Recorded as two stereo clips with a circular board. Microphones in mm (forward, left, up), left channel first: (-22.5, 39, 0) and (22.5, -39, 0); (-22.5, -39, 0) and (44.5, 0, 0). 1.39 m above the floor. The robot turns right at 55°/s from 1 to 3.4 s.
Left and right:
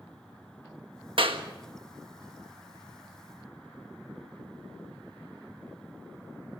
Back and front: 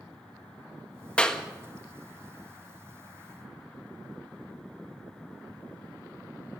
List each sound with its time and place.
1.2 s a clap: 75° right, 1.6 m; by 1.4 s 60° right, 1.6 m